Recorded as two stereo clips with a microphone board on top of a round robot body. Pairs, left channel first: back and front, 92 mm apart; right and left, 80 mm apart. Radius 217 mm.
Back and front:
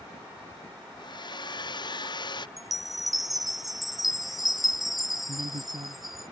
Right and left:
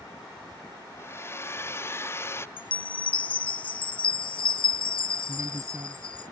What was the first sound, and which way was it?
A hair dryer, 145° right.